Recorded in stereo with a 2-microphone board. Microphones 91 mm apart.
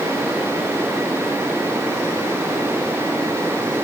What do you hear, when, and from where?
Only background noise.